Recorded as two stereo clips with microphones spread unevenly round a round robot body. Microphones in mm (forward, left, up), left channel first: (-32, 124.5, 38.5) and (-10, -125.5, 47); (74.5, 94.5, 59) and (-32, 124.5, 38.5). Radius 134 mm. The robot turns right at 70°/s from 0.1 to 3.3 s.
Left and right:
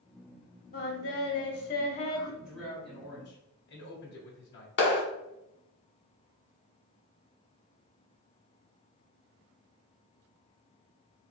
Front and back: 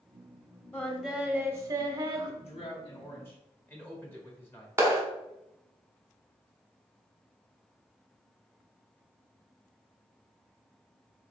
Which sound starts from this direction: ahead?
A man speaking, at 2.4 s.